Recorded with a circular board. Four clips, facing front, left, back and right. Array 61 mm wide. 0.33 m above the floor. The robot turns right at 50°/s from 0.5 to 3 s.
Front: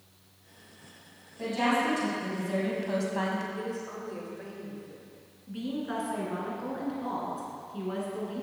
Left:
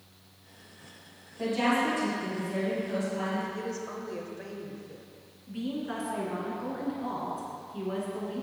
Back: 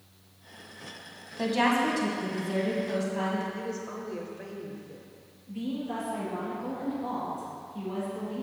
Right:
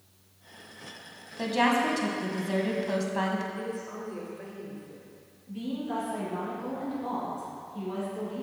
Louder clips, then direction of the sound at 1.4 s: Right 2 dB, back 2 dB; 140° right.